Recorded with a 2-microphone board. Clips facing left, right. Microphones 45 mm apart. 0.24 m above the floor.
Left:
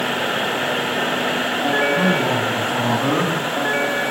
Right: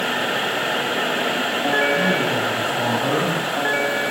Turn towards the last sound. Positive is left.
turn(degrees=55)  # may be behind; listen again after turning